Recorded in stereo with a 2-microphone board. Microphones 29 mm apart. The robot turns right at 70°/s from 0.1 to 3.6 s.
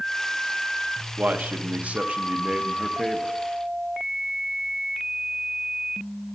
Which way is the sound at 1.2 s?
120° right.